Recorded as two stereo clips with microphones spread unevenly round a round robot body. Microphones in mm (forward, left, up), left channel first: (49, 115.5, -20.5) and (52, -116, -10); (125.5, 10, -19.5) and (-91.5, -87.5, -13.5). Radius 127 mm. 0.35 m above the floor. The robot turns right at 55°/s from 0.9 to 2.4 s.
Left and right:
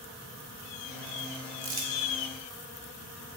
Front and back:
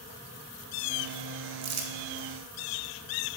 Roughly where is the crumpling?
Behind right.